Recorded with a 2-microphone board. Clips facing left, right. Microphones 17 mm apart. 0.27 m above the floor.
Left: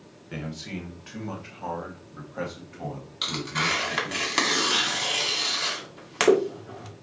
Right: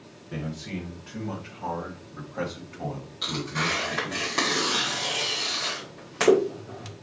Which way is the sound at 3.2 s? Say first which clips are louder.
Left 1 dB; 50° left (ahead or behind).